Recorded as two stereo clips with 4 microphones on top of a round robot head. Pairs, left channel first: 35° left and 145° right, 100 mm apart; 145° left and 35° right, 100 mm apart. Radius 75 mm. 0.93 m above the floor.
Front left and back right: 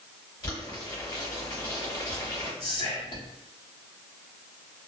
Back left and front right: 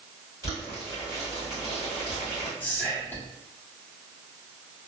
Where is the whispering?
75° left, 1.6 m.